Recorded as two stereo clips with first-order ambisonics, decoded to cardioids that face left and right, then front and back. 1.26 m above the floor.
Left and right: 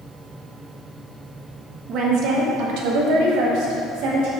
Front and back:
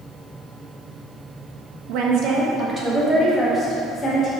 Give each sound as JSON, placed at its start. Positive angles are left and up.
{"t": 1.9, "sound": "a woman speaking", "azimuth_deg": -145, "distance_m": 1.3}